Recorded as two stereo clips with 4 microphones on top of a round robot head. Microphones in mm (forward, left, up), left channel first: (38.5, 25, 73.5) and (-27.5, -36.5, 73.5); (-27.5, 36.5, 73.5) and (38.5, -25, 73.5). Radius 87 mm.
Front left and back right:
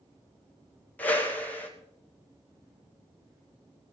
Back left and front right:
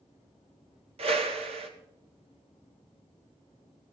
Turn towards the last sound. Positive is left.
turn(degrees=-30)